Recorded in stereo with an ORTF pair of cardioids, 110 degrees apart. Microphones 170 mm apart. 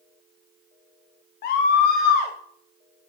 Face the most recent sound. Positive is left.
turn(degrees=70)